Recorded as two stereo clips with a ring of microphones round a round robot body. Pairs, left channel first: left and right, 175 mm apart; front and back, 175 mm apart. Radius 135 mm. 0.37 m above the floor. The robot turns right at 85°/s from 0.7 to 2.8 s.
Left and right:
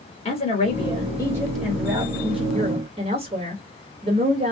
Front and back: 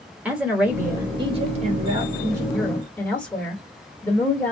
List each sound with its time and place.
0.2 s a woman speaking: 105° left, 1.5 m; by 4.5 s 80° right, 1.5 m